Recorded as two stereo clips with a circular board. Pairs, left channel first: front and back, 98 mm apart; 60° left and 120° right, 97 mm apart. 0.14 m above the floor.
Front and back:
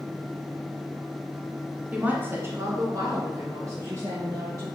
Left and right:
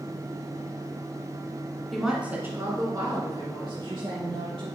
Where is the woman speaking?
140° left, 1.6 m; by 4.7 s 130° right, 4.5 m.